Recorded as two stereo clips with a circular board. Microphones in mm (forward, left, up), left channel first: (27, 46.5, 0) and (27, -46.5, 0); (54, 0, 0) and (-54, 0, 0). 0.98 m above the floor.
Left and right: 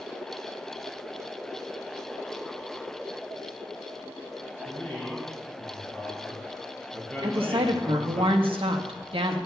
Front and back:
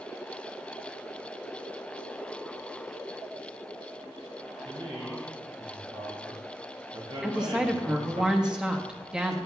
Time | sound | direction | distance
4.7 | a man speaking | 170° left | 3 m
7.2 | a woman speaking | 100° right | 1.0 m